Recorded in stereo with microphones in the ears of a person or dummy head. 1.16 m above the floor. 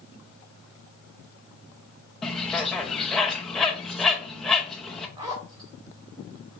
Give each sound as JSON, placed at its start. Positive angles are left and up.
{"t": 2.2, "sound": "a bird", "side_deg": 0, "distance_m": 0.5}
{"t": 5.2, "sound": "a zipper", "side_deg": -15, "distance_m": 0.8}